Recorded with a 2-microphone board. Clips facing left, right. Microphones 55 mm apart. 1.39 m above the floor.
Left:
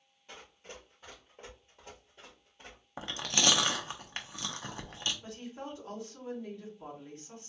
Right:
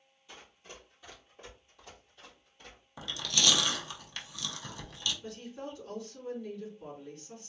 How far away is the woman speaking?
About 2 m.